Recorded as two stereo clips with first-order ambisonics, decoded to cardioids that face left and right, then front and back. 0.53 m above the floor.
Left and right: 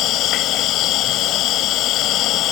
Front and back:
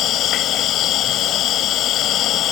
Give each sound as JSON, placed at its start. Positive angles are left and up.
{"t": 0.0, "sound": "an insect", "azimuth_deg": 50}